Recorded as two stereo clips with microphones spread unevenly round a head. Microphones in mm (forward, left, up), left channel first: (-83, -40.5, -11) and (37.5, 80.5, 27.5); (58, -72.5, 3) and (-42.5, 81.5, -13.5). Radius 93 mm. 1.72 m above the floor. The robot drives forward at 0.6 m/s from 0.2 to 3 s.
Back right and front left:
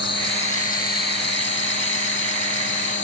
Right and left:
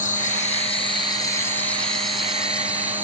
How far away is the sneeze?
I don't hear a sneeze.